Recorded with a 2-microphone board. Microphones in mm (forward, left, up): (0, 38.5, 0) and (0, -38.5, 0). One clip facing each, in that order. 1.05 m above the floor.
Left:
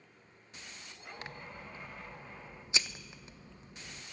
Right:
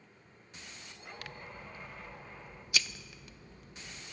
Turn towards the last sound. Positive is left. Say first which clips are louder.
# left 1 dB
turn(degrees=25)  # may be behind; listen again after turning